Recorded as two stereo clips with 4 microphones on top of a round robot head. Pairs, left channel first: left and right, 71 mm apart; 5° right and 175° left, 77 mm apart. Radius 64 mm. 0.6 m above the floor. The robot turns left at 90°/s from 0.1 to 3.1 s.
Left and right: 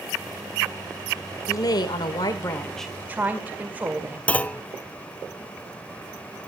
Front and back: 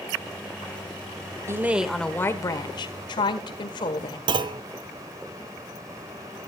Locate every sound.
1.5 s a woman speaking: 125° left, 1.9 m; by 4.2 s 20° right, 1.9 m
4.3 s a clunk: 160° left, 0.7 m